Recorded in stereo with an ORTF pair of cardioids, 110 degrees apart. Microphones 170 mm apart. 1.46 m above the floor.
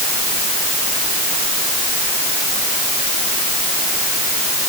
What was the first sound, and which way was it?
Only background noise.